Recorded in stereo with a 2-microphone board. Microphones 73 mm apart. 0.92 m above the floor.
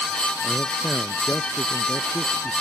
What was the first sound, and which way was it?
A man speaking, 15° left (ahead or behind).